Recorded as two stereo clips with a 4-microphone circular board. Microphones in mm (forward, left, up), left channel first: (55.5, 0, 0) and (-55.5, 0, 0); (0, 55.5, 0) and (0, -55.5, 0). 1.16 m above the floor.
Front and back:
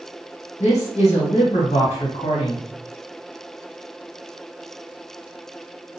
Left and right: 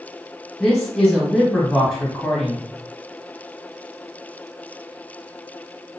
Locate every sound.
0.6 s a man speaking: straight ahead, 1.5 m